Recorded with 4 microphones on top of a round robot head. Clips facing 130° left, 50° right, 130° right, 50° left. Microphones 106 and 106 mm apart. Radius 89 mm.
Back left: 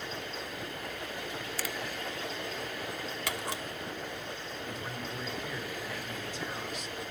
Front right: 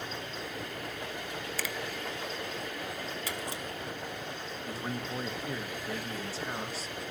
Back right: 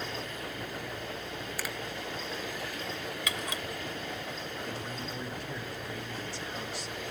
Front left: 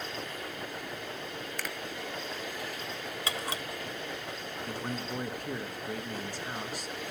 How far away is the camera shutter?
About 1.5 m.